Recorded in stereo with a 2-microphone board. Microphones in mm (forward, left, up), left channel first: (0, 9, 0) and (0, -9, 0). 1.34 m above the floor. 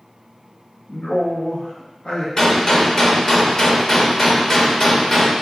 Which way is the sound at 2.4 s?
30° left (ahead or behind).